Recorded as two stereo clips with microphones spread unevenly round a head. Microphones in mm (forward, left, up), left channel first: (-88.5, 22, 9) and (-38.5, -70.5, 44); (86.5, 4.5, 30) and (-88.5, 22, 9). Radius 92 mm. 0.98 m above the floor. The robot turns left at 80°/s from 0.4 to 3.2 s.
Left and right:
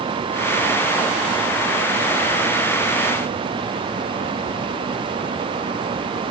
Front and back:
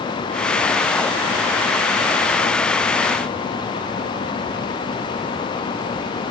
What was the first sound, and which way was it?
Only background noise.